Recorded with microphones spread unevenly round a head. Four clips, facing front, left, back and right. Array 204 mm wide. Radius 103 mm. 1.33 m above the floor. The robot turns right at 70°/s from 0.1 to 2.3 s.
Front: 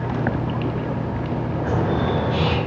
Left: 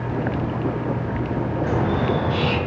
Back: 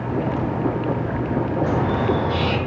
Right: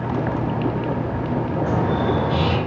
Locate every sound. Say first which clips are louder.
1.6 s a bird: even, front 1 dB; 170° right, 4.5 m; by 2.6 s 120° right, 4.5 m